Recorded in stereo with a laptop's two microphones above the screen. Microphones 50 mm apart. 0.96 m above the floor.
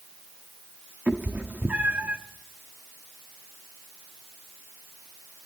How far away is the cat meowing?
About 0.9 m.